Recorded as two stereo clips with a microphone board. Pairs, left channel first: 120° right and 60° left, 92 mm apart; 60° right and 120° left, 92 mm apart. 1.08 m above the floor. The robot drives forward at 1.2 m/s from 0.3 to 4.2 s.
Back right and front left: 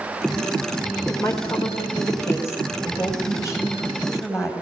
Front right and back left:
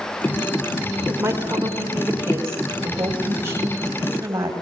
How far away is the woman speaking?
About 4.5 m.